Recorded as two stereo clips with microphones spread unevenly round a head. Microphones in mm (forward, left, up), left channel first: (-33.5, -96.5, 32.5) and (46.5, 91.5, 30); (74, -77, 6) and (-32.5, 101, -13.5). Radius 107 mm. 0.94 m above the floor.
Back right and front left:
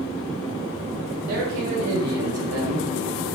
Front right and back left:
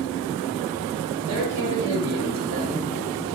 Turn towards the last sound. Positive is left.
turn(degrees=50)